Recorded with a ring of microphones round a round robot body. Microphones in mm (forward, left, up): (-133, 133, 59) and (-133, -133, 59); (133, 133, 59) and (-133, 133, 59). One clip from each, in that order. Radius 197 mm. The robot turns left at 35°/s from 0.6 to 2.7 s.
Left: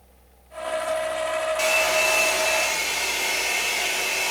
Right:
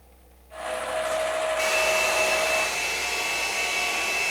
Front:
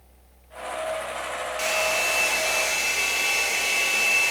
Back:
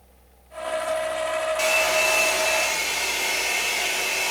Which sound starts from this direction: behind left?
A hair dryer, at 1.6 s.